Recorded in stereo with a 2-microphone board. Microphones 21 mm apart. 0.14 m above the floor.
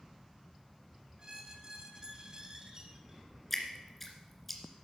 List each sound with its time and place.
1.2 s a squeak: 35° right (ahead or behind), 1.6 m
3.5 s dripping: 10° left (ahead or behind), 2 m